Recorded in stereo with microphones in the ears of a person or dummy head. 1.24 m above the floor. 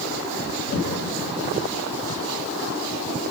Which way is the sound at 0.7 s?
75° left (ahead or behind).